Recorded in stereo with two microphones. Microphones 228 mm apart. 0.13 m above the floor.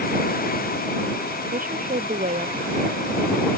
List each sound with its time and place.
1.5 s a woman speaking: 35° right (ahead or behind)